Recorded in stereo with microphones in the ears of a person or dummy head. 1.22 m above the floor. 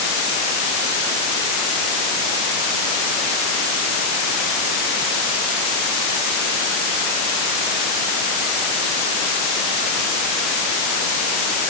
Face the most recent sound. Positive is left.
No sound to turn to.